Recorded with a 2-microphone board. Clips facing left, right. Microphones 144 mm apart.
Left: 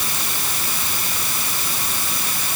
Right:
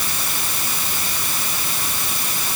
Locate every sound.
Only background noise.